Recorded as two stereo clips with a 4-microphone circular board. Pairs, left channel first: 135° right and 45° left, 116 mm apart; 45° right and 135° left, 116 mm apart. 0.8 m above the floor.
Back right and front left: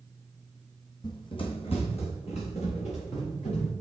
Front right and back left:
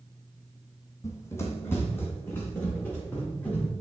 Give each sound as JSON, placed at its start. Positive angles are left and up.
{"t": 1.0, "sound": "running footsteps", "azimuth_deg": -100, "distance_m": 1.1}